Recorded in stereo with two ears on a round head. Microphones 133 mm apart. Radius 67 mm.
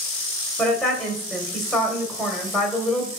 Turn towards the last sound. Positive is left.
turn(degrees=5)  # may be behind; listen again after turning